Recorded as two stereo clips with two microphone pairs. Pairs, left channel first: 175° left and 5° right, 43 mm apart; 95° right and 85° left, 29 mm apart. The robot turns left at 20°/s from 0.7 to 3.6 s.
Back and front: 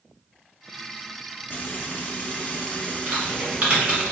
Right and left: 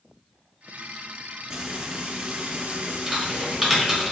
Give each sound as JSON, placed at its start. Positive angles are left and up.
{"t": 1.5, "sound": "frying", "azimuth_deg": 150, "distance_m": 0.6}
{"t": 3.1, "sound": "typing on a keyboard", "azimuth_deg": 10, "distance_m": 1.1}